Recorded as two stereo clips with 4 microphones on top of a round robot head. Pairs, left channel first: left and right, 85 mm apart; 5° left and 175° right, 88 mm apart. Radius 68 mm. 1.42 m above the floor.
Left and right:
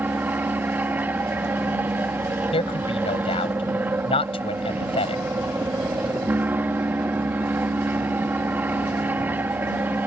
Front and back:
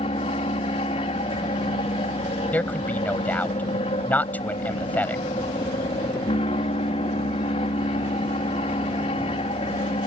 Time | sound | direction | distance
0.0 | an aircraft | 25° right | ?
2.5 | a man speaking | 80° left | ?